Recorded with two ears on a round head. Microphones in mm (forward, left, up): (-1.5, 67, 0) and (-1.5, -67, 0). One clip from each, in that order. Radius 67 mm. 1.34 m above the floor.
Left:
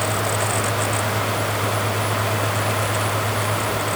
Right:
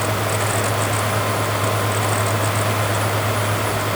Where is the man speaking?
No man speaking in this recording.